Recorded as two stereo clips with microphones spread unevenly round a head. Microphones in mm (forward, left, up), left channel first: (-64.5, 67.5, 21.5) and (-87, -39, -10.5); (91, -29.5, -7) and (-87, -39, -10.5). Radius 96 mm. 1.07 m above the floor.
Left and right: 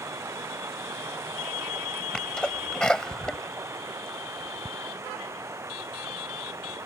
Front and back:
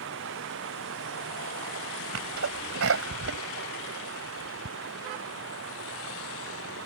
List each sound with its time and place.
0.0 s running water: 165° right
2.1 s a sneeze: 160° left